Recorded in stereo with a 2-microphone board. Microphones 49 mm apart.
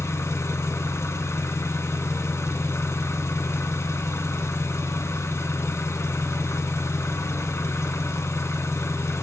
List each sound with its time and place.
0.0 s an engine running: 75° left (ahead or behind), 1.3 m